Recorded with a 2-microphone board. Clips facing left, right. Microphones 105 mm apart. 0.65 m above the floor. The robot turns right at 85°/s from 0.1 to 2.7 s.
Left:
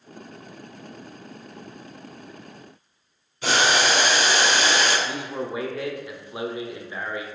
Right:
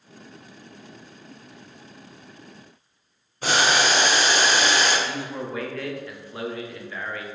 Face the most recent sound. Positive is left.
turn(degrees=20)  # may be behind; listen again after turning